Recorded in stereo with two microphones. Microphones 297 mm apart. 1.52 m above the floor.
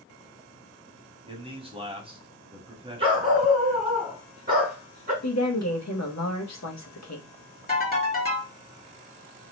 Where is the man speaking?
20° right (ahead or behind), 0.8 m.